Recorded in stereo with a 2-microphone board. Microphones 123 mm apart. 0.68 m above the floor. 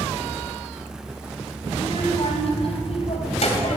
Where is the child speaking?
45° left (ahead or behind), 3.5 m; by 3.8 s 65° left (ahead or behind), 2.5 m.